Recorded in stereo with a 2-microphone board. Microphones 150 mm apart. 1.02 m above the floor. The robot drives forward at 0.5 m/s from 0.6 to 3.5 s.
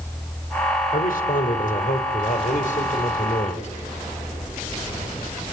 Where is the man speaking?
70° left (ahead or behind), 3.5 m; by 3.7 s 55° left (ahead or behind), 4 m.